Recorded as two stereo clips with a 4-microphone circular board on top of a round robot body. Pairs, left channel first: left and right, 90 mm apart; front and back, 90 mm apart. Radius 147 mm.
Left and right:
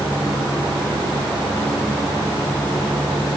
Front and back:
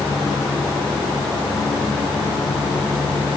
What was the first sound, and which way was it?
Only background noise.